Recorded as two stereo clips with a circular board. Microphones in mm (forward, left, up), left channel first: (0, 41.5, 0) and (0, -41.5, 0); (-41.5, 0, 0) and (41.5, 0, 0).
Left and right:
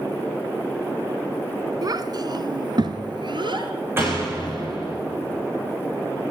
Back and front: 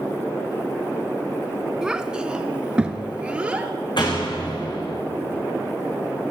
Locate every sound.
1.8 s a child speaking: 80° right, 1.5 m; by 3.7 s 75° right, 3 m
4.0 s a door slam: 150° right, 9.5 m